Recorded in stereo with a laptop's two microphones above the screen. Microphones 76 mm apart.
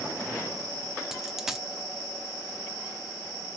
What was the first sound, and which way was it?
A dropped coin, 5° right (ahead or behind).